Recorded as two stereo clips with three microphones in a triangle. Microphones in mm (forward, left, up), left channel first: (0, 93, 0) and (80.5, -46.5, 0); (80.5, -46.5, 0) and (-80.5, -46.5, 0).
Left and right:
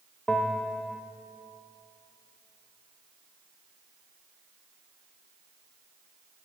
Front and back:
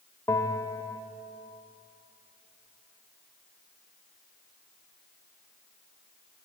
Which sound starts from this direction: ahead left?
A bell, at 0.3 s.